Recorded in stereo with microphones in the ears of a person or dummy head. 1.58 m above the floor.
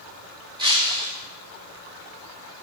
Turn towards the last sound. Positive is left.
turn(degrees=-25)  # may be behind; listen again after turning